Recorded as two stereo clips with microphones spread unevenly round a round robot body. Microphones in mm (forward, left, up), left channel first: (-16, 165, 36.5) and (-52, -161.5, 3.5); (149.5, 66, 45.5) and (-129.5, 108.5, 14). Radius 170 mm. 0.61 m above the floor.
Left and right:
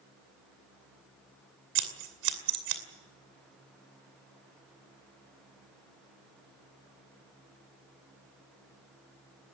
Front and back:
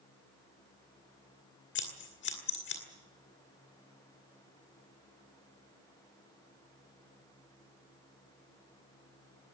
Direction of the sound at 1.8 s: 65° right.